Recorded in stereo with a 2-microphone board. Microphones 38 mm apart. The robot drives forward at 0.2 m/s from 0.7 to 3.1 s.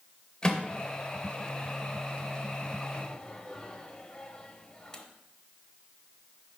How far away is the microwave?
About 0.7 m.